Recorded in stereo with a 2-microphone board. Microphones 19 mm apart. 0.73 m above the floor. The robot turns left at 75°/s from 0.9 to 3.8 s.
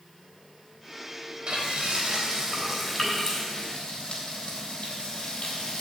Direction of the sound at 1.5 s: 65° right (ahead or behind).